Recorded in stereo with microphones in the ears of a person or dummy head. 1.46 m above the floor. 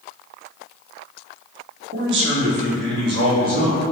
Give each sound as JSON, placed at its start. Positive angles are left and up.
{"t": 1.9, "sound": "a man speaking", "side_deg": -65, "distance_m": 0.8}